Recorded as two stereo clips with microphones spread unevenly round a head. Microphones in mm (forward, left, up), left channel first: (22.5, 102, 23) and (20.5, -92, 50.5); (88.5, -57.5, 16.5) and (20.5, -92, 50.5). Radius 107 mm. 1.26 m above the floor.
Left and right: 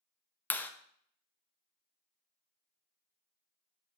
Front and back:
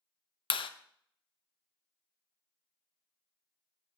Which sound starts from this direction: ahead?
A clap, at 0.5 s.